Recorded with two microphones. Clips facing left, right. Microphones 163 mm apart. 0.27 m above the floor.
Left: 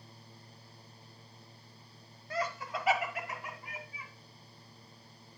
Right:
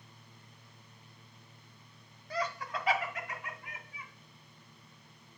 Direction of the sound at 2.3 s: Centre (ahead or behind).